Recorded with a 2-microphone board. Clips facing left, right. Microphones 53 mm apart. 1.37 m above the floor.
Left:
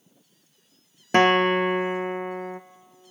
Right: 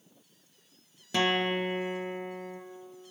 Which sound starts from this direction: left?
A guitar, at 1.1 s.